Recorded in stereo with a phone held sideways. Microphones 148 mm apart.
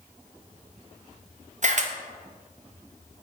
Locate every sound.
1.6 s a camera shutter: 55° right (ahead or behind), 0.7 m